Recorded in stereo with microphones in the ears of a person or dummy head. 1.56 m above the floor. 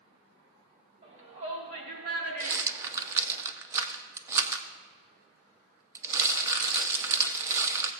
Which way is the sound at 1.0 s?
40° right (ahead or behind).